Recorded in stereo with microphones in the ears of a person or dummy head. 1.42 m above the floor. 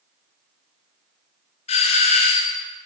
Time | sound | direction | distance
1.7 | a doorbell | 35° left (ahead or behind) | 0.7 m